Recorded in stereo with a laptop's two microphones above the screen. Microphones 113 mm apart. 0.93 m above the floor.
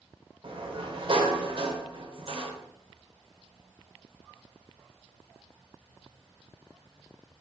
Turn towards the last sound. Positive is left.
turn(degrees=-50)  # may be behind; listen again after turning